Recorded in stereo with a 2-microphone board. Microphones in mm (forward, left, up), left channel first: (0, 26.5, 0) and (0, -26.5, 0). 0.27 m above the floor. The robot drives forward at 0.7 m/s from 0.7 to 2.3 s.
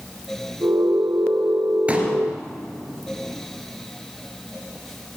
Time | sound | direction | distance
1.9 | a pop | 25° right (ahead or behind) | 3 m